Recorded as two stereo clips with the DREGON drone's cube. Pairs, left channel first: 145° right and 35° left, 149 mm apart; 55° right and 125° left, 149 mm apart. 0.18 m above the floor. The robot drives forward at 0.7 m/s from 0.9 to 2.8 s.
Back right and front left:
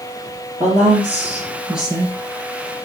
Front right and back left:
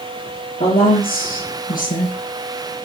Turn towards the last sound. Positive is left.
turn(degrees=-60)